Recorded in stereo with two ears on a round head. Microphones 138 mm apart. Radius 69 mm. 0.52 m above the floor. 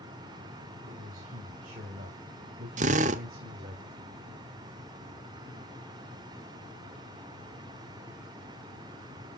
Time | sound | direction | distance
0.9 | a man speaking | 60° right (ahead or behind) | 2.5 m
2.8 | a drill | 50° right (ahead or behind) | 0.9 m